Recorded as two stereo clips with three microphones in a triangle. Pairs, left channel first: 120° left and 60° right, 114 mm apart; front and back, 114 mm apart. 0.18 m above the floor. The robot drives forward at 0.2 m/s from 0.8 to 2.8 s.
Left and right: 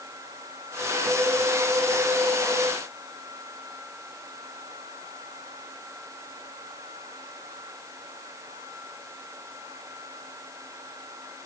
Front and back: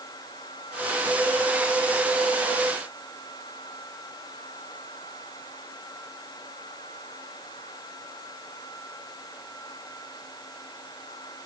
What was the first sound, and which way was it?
Only background noise.